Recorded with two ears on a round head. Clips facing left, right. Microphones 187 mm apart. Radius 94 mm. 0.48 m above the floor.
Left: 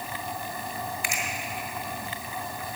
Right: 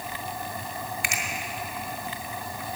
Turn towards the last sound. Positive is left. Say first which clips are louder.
# left 1 dB
turn(degrees=-55)  # may be behind; listen again after turning